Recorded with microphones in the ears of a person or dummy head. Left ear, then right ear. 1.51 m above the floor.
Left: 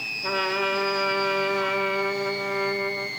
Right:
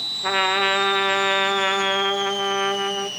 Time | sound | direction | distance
0.2 | a trumpet | 55° right (ahead or behind) | 0.7 m